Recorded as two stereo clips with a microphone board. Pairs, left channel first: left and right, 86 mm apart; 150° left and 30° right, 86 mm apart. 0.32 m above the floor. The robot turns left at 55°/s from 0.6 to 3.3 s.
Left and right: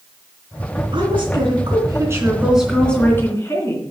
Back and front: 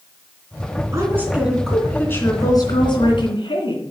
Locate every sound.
0.9 s a woman speaking: 80° right, 3 m; by 3.8 s 145° left, 3 m